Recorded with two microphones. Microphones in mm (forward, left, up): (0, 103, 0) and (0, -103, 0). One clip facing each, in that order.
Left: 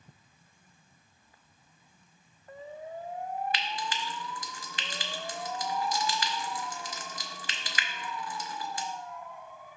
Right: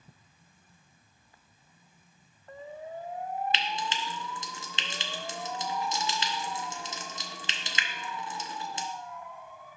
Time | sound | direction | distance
3.5 | frying | 25° right (ahead or behind) | 0.6 m